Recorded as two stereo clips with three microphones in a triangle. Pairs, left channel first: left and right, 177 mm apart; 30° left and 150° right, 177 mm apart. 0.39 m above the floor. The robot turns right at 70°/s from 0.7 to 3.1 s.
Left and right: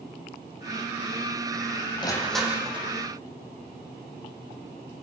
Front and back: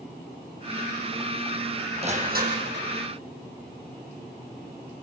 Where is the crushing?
155° left, 6.5 m; by 2.9 s 140° right, 6.5 m.